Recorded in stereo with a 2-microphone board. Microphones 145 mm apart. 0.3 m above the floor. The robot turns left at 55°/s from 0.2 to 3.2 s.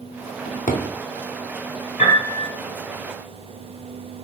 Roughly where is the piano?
Left.